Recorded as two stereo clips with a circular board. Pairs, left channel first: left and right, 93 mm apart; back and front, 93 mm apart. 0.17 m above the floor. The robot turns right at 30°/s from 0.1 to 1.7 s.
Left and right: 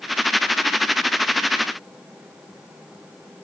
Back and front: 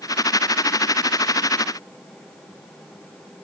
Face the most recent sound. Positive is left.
No sound to turn to.